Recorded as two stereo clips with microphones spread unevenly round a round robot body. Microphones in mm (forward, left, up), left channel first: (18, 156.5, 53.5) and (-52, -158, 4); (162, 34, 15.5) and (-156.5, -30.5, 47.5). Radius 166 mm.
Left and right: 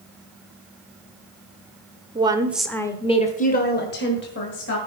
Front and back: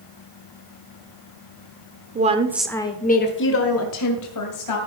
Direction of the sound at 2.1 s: 125° right.